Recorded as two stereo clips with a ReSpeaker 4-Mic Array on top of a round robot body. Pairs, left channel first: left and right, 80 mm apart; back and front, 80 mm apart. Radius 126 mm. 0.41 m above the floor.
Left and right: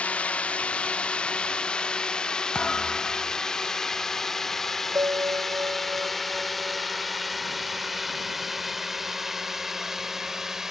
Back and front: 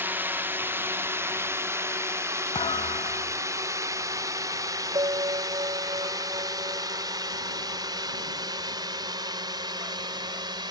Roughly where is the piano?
Ahead right.